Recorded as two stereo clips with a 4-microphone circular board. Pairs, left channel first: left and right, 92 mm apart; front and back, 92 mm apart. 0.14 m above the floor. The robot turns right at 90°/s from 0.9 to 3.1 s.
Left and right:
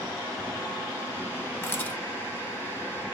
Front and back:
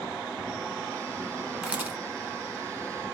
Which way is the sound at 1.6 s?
110° left.